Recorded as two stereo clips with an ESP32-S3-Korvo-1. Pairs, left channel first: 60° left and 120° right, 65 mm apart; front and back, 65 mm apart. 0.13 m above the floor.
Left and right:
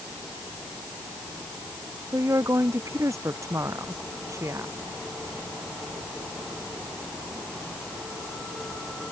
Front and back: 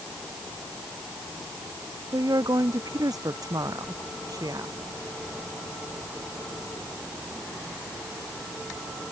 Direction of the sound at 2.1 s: 160° right.